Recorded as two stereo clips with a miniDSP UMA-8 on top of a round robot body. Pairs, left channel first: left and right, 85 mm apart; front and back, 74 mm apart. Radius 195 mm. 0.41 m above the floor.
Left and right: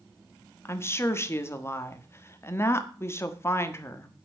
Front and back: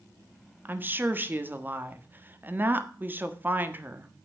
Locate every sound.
0.7 s a woman speaking: 130° left, 1.6 m